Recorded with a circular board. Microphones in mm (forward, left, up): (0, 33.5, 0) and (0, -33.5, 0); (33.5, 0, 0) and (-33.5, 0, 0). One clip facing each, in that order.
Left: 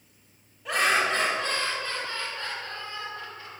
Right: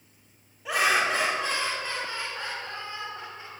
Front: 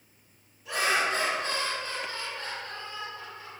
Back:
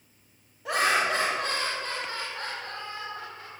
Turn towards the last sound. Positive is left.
turn(degrees=-155)